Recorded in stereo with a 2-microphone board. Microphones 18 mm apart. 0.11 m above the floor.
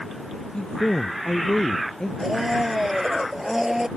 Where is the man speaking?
60° left (ahead or behind).